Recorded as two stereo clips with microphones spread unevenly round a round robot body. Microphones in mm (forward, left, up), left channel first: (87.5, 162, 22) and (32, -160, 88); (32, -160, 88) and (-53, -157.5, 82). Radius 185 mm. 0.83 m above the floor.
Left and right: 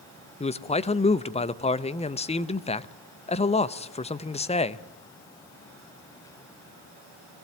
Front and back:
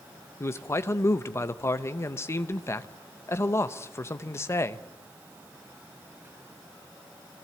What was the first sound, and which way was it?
A man speaking, 40° left.